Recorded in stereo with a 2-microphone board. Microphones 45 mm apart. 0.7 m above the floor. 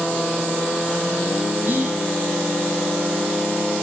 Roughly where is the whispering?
Right.